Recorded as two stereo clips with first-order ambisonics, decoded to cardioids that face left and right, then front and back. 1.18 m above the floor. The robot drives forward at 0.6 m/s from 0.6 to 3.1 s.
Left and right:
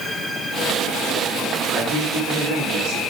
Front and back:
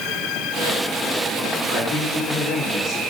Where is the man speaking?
50° right, 4 m; by 3.0 s 60° right, 3.5 m.